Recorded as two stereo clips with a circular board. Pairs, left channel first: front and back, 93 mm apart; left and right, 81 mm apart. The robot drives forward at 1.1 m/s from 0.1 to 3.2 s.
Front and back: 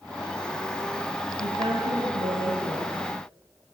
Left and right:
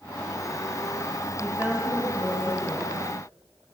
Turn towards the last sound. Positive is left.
turn(degrees=-165)